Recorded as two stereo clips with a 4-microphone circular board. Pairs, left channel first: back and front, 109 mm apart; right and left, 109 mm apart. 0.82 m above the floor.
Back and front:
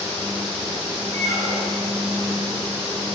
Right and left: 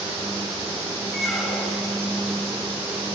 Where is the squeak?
Straight ahead, 6 m.